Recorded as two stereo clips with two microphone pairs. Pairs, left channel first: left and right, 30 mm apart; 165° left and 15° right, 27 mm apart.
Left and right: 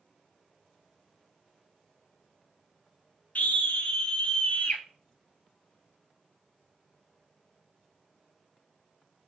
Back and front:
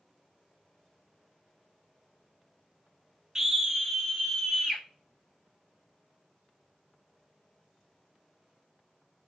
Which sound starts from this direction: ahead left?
A scream, at 3.4 s.